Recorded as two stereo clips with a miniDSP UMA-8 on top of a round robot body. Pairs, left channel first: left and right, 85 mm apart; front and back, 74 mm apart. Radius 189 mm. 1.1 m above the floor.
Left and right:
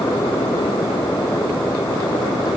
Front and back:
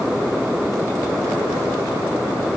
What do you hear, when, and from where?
Only background noise.